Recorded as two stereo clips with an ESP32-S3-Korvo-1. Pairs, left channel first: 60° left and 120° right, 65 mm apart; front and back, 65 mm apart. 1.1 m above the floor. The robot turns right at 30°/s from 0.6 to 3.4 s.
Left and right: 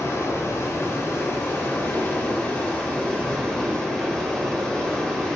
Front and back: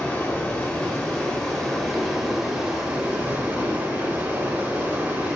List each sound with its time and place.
0.0 s running water: 50° left, 1.0 m; by 5.4 s 130° left, 1.0 m